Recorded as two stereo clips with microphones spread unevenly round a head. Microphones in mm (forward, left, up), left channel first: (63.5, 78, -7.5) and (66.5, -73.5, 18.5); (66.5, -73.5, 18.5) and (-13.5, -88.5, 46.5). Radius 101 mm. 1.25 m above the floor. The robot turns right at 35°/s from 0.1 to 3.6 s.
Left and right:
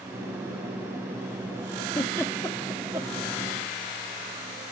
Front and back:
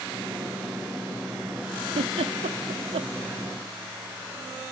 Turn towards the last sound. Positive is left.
turn(degrees=-150)